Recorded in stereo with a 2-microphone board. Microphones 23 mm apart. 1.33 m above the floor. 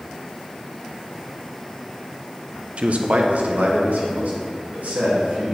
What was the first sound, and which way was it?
A man speaking, 55° right (ahead or behind).